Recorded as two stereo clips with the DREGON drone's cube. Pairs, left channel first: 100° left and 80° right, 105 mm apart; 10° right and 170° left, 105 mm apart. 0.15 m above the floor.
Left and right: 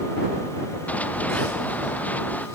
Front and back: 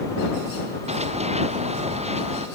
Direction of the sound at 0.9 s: 175° left.